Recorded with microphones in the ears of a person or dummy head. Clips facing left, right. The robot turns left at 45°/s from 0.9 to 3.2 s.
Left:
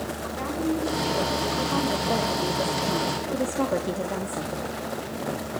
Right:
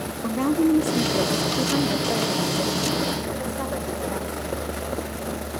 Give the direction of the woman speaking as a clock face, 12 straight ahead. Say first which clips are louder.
Right 9 dB; 4 o'clock.